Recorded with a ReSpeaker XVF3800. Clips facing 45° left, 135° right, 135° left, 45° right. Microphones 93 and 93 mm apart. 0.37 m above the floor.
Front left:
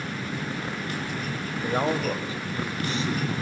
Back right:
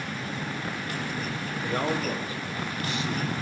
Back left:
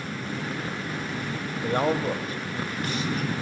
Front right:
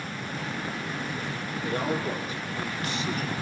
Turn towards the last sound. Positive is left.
turn(degrees=95)